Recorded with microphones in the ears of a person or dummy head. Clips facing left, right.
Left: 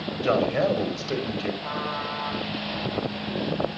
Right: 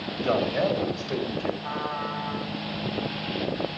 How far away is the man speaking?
About 2.5 m.